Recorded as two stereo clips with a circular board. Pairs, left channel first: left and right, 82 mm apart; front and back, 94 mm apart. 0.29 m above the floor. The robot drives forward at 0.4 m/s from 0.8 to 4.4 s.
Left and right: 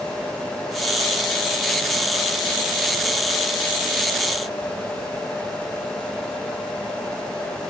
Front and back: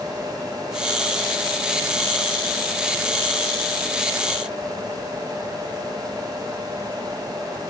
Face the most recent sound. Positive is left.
No sound to turn to.